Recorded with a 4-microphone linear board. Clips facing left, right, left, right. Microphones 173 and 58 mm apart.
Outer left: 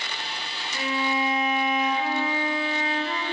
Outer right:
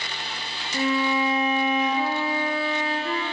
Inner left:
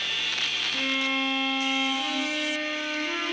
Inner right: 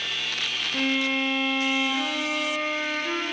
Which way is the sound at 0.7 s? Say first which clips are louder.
Outer right 4 dB, inner right 3 dB; 35° right (ahead or behind).